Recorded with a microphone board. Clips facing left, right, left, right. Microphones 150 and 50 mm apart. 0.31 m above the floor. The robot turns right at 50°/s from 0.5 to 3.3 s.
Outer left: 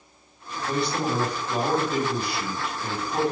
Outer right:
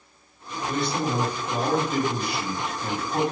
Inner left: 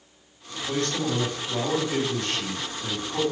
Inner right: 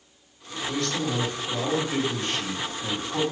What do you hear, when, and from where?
0.7 s a man speaking: 130° left, 2 m; by 3.2 s 105° right, 2 m